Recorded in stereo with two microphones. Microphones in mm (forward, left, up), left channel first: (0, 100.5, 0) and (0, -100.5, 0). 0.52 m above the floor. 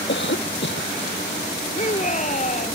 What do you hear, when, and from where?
0.1 s a cough: 65° left (ahead or behind)
1.8 s a shout: 35° left (ahead or behind)